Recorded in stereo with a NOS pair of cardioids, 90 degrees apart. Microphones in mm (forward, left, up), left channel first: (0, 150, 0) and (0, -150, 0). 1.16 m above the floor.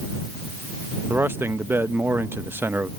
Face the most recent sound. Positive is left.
turn(degrees=-5)